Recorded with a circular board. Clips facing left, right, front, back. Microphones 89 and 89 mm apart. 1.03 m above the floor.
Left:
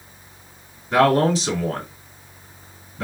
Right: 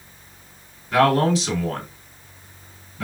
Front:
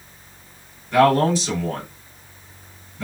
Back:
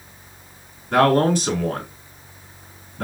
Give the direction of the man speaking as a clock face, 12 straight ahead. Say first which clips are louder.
Left 1 dB, even; 7 o'clock.